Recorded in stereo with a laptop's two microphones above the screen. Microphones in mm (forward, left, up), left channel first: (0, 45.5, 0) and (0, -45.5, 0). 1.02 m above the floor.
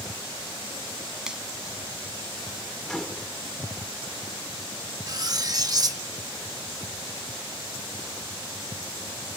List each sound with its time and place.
1.3 s a finger snap: 10° right (ahead or behind)
2.9 s a microwave: 5° left (ahead or behind)
5.1 s cutlery clinking: 40° right (ahead or behind)